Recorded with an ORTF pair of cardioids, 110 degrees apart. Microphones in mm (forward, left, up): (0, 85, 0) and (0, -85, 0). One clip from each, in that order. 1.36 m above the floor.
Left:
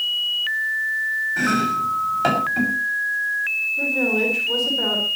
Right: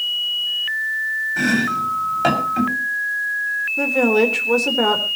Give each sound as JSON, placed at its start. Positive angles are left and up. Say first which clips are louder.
{"t": 1.4, "sound": "chopping", "louder": "right 2 dB", "azimuth_deg": -10, "distance_m": 6.0}
{"t": 3.8, "sound": "a woman speaking", "louder": "right 7 dB", "azimuth_deg": -55, "distance_m": 4.0}